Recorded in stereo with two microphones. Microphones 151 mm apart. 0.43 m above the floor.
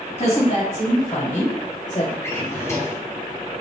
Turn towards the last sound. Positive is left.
turn(degrees=20)  # may be behind; listen again after turning